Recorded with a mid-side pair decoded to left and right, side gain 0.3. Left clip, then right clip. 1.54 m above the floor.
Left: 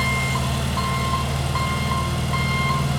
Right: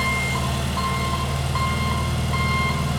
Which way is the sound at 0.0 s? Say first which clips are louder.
Even; 10° left.